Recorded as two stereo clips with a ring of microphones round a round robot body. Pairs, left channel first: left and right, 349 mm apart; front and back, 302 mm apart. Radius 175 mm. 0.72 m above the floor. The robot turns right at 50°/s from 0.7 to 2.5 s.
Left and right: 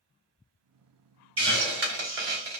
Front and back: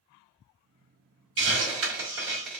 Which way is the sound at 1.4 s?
145° right.